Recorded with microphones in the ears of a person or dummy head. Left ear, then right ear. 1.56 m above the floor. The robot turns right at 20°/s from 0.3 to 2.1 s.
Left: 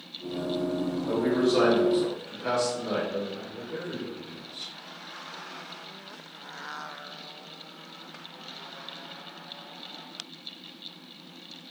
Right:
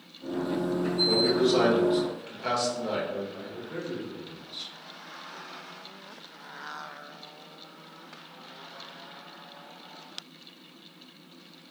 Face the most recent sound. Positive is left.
turn(degrees=-55)  # may be behind; listen again after turning